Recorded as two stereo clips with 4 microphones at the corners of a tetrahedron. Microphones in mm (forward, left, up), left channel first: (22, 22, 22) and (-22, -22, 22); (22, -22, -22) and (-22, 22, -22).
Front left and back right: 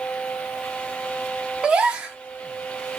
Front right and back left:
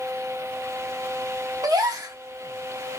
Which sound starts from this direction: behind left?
A gasp, at 1.6 s.